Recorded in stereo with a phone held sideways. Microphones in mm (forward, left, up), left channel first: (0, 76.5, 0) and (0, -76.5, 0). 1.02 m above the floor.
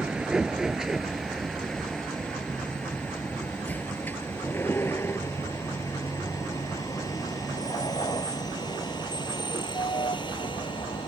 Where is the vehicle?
5° right (ahead or behind); by 11.1 s 35° left (ahead or behind).